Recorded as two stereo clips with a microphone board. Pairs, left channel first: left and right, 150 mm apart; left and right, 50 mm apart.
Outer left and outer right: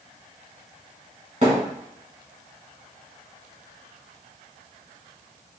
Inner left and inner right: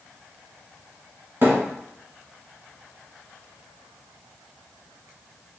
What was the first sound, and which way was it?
A thud, 50° right (ahead or behind).